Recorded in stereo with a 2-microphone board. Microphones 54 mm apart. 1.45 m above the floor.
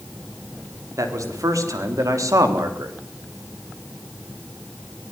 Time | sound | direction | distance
1.0 | a man speaking | 85° right | 4 m